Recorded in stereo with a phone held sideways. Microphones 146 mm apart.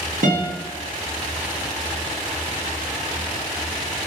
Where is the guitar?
75° right (ahead or behind), 0.9 m.